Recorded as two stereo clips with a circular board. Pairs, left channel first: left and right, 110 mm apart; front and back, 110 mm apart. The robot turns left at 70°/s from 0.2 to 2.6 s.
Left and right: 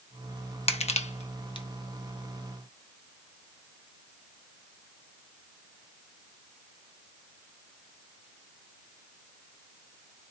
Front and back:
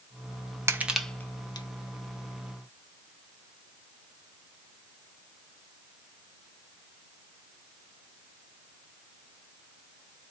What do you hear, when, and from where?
0.7 s crushing: 115° left, 0.6 m; by 1.7 s 45° left, 0.6 m